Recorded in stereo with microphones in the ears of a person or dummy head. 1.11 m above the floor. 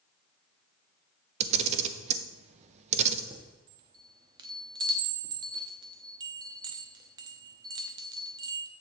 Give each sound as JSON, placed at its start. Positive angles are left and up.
{"t": 1.4, "sound": "a camera shutter", "side_deg": -40, "distance_m": 0.6}
{"t": 3.3, "sound": "a chime", "side_deg": -25, "distance_m": 0.8}